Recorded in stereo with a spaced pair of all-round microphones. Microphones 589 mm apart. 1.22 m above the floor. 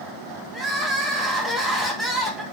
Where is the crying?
Centre (ahead or behind), 0.7 m.